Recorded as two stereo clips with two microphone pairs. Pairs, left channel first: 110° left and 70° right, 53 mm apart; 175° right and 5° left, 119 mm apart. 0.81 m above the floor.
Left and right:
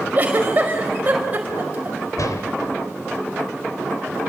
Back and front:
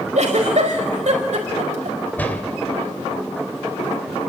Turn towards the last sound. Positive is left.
turn(degrees=110)